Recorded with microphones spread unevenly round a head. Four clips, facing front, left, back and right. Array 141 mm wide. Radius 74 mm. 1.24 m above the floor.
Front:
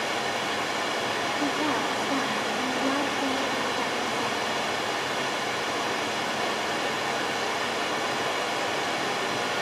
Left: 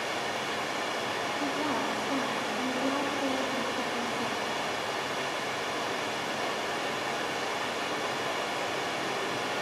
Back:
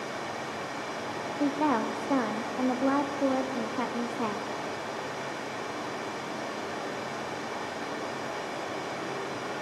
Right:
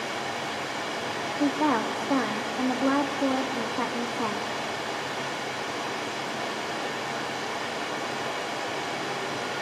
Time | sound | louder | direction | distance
0.0 | running water | right 1 dB, front 6 dB | 10° left | 1.7 m
1.4 | a woman speaking | right 9 dB, back 3 dB | 100° right | 0.6 m